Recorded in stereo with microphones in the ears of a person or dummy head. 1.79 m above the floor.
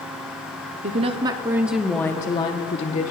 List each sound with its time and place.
0.8 s a woman speaking: 35° right (ahead or behind), 0.8 m; by 3.1 s 40° left (ahead or behind), 1.0 m